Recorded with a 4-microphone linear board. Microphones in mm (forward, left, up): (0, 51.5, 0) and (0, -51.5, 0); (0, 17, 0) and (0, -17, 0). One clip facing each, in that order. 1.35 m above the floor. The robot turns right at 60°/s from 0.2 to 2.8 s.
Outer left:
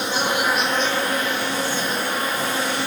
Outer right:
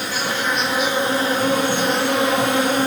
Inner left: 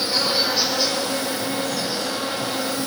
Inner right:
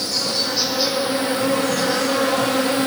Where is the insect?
155° left, 1.3 m; by 2.9 s 50° right, 1.3 m.